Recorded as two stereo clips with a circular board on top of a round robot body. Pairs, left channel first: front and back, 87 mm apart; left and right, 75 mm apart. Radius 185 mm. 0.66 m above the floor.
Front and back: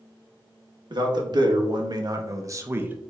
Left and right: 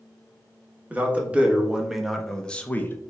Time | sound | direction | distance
0.9 | a man speaking | 160° right | 1.2 m